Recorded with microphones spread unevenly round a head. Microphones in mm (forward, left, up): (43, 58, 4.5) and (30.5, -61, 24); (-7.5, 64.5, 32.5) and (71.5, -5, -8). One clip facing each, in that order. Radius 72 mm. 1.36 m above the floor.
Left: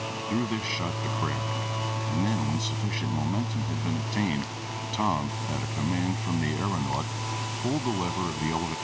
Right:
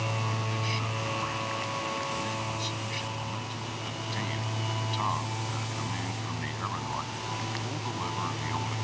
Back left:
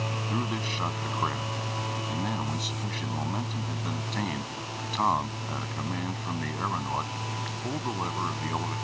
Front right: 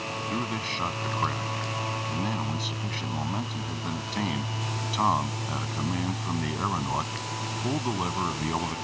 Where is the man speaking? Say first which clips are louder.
Left 5 dB, even; 55° left; by 8.8 s 35° left.